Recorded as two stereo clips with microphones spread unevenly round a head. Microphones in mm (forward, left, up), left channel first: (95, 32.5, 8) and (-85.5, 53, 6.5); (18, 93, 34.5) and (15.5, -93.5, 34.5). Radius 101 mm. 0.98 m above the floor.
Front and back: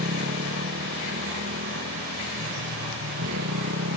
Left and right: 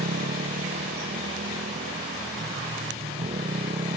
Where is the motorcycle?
145° right; by 4.0 s 155° right.